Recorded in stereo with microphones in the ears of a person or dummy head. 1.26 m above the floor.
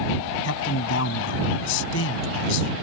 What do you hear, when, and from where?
0.4 s a man speaking: 75° left (ahead or behind)